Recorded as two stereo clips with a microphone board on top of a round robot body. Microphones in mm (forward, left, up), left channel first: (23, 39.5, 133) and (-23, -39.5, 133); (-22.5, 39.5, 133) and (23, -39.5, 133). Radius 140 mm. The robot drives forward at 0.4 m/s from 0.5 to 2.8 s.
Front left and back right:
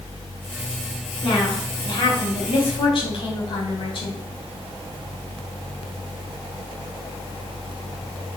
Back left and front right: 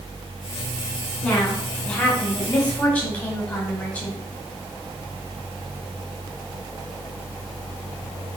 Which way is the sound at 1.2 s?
40° left.